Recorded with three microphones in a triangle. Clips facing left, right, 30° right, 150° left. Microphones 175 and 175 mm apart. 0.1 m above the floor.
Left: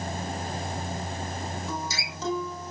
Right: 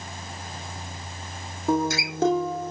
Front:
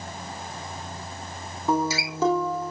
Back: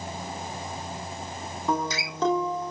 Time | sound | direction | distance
1.7 | a guitar | 115° right | 2.0 m